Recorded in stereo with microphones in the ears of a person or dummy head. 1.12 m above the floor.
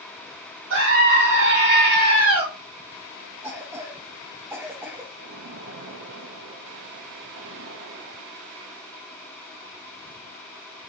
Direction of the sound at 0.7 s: 65° right (ahead or behind).